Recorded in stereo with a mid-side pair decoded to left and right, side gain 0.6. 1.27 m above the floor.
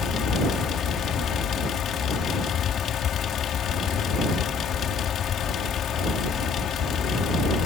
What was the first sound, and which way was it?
A fan, 50° left.